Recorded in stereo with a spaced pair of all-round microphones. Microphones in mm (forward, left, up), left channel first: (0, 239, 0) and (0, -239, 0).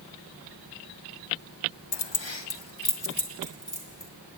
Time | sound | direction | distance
1.9 | keys jangling | 60° left (ahead or behind) | 0.6 m